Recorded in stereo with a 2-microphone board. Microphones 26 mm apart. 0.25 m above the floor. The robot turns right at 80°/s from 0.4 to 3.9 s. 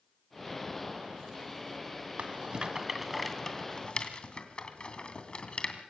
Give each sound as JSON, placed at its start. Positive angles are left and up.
{"t": 2.2, "sound": "a rattle", "side_deg": -50, "distance_m": 2.5}